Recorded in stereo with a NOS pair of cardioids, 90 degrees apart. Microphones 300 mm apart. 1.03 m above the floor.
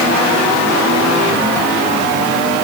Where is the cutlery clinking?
No cutlery clinking in this recording.